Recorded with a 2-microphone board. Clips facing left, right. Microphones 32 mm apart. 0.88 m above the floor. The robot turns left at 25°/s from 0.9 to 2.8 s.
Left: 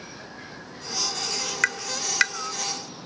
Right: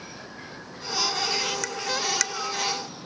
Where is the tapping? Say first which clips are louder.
Left 2 dB; 55° left (ahead or behind), 0.6 m; by 2.3 s 35° left (ahead or behind), 0.6 m.